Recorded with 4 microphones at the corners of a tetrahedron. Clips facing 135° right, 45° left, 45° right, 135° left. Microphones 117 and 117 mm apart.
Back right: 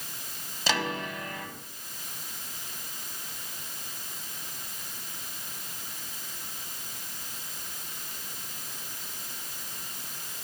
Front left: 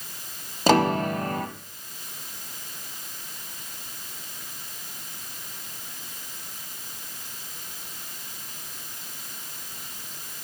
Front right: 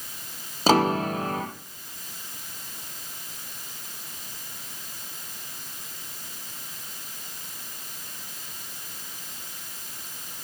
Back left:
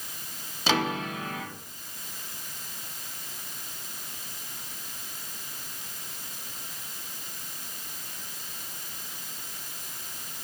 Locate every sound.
0.7 s a piano: 5° left, 1.1 m